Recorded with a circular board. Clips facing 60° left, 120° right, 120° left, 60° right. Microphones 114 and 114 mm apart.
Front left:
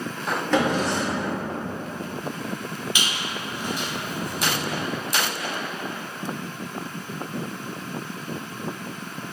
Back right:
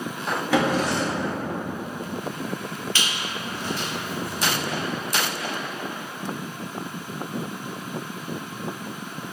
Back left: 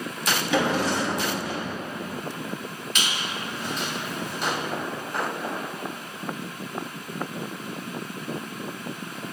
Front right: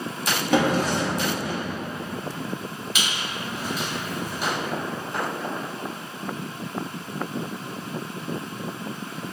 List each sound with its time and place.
0.5 s a drawer: 40° right, 0.9 m
3.0 s a squeak: 15° left, 0.7 m